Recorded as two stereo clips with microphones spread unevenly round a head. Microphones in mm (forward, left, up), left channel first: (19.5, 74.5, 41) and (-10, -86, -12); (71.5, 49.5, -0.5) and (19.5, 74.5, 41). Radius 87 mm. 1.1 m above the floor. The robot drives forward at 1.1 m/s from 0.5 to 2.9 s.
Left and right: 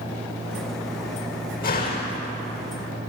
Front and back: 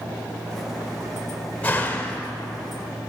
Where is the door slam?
40° left, 3 m; by 2.3 s 55° left, 2.5 m.